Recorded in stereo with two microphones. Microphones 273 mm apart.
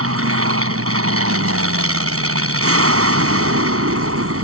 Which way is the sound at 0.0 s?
55° right (ahead or behind).